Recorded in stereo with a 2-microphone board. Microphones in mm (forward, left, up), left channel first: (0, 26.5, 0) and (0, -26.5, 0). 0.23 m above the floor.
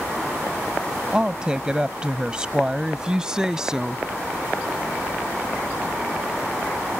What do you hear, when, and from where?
1.1 s a woman speaking: 15° right (ahead or behind); by 4.0 s 10° right (ahead or behind)